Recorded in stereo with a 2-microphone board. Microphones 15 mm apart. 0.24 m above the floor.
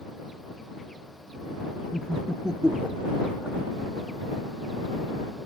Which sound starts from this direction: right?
Laughter, at 1.9 s.